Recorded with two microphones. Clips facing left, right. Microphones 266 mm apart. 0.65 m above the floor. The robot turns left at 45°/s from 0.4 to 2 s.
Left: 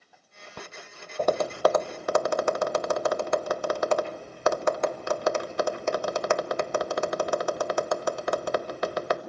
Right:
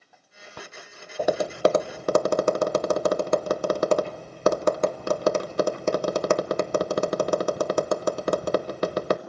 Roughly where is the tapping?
Centre.